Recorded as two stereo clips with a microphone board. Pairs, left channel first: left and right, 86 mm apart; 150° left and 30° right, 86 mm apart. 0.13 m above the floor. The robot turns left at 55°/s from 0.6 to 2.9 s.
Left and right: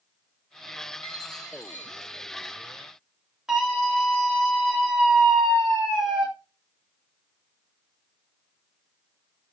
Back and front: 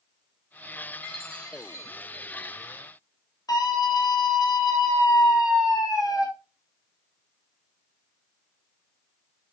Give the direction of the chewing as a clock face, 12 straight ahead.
No chewing in this recording.